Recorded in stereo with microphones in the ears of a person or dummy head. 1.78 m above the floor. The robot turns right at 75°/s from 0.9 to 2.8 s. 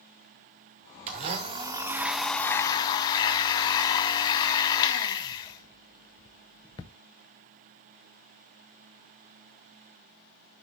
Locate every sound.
1.1 s a blender: 90° right, 0.9 m; by 6.9 s 40° left, 0.9 m